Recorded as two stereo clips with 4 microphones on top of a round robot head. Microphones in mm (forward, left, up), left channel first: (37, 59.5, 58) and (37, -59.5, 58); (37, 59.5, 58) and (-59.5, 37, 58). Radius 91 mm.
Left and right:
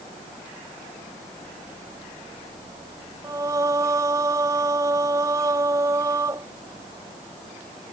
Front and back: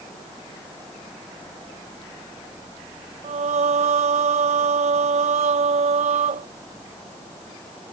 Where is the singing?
160° right.